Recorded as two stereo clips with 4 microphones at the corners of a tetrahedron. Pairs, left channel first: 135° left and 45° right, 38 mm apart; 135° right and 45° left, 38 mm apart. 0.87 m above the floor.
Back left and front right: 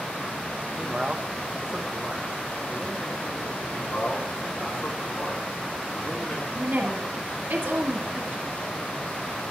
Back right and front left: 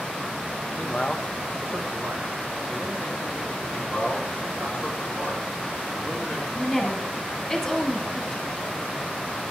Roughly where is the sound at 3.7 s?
Behind left.